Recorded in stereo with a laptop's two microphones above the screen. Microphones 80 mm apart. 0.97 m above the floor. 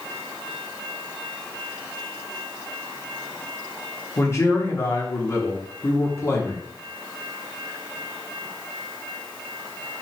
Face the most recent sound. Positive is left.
turn(degrees=35)  # may be behind; listen again after turning